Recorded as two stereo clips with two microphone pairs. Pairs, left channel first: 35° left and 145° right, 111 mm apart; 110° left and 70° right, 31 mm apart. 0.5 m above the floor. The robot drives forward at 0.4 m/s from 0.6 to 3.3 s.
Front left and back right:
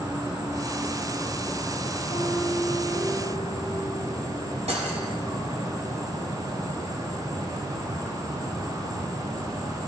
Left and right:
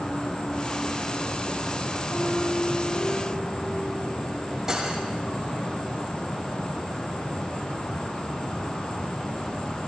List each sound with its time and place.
0.0 s an insect: 150° left, 2.5 m; by 9.9 s 160° left, 3.5 m
2.1 s a piano: 95° left, 4.5 m; by 4.2 s 100° left, 4.5 m
4.7 s cutlery clinking: 145° right, 1.7 m